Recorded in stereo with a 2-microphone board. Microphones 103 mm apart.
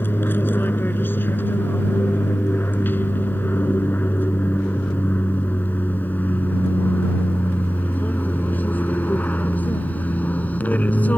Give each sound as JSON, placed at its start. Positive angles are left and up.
{"t": 0.0, "sound": "an aircraft", "side_deg": 20}